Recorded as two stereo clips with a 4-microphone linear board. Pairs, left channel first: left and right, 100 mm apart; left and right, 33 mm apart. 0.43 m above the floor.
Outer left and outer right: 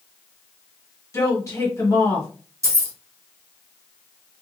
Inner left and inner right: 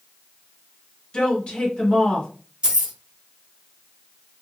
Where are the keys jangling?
30° right (ahead or behind), 1.0 m.